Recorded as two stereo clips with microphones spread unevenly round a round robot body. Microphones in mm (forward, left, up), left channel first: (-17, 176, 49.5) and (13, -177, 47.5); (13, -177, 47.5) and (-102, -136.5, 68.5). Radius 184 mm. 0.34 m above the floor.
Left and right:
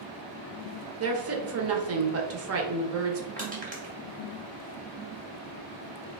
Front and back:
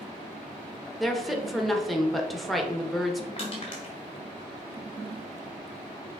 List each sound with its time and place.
1.0 s a woman speaking: 95° right, 1.0 m
3.4 s crushing: 20° right, 1.6 m